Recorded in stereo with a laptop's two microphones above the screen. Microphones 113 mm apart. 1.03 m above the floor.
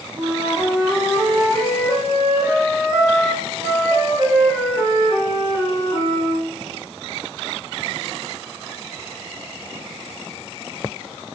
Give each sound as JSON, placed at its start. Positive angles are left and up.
{"t": 0.2, "sound": "a flute", "side_deg": -35, "distance_m": 1.1}